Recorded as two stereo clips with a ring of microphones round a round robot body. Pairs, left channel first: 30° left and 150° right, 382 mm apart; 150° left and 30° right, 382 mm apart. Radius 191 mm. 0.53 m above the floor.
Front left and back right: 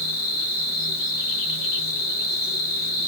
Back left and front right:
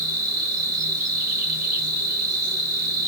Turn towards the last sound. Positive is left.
turn(degrees=5)